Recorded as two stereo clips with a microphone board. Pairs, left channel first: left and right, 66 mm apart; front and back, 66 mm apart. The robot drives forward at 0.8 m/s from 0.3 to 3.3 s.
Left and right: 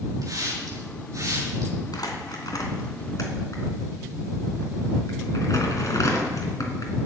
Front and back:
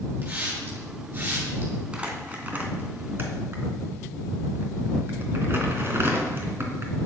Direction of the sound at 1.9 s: 105° left.